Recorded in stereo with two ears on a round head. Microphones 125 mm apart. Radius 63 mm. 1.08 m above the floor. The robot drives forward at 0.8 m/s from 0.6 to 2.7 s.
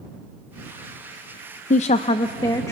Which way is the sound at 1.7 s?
60° left (ahead or behind).